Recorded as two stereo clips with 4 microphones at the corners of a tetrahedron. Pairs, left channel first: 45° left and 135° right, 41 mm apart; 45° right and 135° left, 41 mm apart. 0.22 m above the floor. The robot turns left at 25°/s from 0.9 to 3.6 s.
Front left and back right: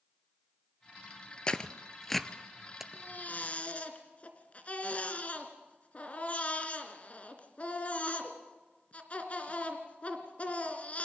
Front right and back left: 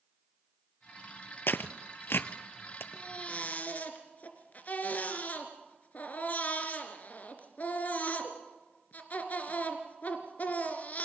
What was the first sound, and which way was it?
Tearing paper, 20° right.